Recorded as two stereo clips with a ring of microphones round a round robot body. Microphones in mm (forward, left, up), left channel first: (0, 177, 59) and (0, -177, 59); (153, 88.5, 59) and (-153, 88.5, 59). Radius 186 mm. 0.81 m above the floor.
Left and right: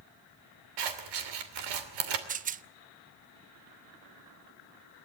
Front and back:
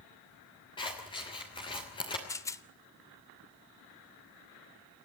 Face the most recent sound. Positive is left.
turn(degrees=-65)